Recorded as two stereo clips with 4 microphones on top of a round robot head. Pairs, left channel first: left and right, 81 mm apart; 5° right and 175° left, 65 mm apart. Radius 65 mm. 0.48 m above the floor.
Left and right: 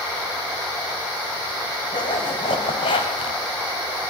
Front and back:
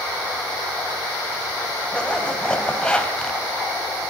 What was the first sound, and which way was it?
A zipper, 70° left.